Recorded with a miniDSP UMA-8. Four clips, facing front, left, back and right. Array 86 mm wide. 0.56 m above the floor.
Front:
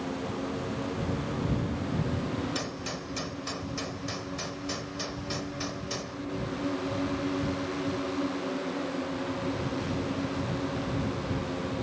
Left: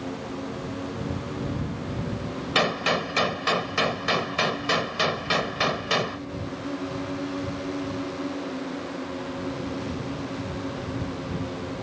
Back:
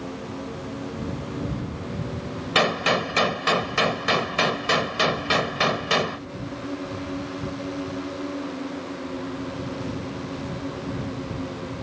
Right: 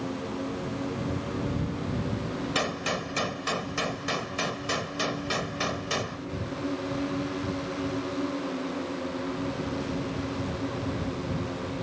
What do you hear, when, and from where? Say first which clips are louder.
2.5 s a gunshot: left 9 dB, back 13 dB; 155° left